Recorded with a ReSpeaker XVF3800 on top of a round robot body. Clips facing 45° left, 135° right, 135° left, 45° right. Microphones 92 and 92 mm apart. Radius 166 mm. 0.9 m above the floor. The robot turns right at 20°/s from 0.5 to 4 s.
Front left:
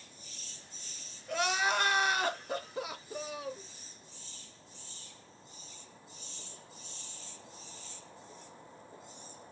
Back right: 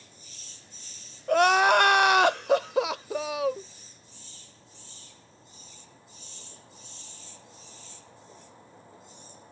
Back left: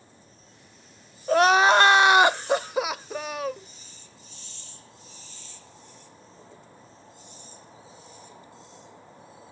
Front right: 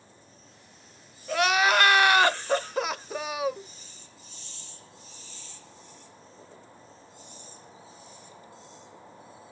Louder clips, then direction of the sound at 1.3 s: Back right 12 dB, back left 6 dB; 170° right.